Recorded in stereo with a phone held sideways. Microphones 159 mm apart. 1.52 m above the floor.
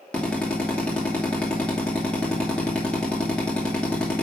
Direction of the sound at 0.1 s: 5° left (ahead or behind).